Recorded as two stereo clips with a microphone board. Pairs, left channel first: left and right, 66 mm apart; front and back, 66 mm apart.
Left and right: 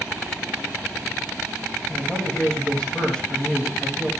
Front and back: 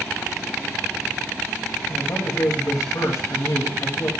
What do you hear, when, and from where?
1.9 s a man speaking: 20° left, 4 m